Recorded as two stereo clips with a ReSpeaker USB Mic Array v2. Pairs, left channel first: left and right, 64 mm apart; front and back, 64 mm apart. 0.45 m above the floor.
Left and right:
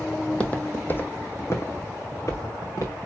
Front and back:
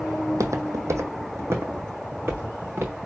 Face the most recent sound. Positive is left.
turn(degrees=125)